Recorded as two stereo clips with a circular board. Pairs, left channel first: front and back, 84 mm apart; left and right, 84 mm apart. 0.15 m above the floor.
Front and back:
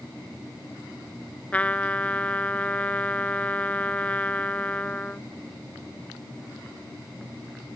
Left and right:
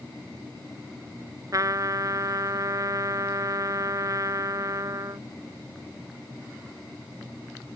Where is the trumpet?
65° right.